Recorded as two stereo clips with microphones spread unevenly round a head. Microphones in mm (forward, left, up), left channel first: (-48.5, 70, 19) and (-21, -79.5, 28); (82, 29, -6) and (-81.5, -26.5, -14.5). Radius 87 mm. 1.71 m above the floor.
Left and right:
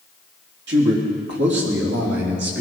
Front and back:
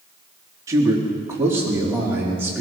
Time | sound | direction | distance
0.7 | a man speaking | 90° right | 3 m